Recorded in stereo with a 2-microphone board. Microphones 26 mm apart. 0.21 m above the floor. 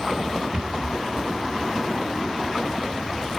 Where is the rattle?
35° right (ahead or behind), 1.2 m.